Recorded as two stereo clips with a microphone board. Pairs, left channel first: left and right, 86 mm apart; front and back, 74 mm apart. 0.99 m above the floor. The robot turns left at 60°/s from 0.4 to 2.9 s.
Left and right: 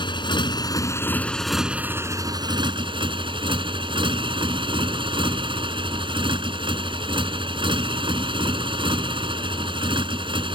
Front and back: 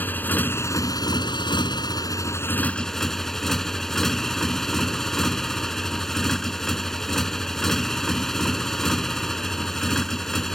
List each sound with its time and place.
0.0 s a motorcycle: 65° left; by 10.6 s 85° right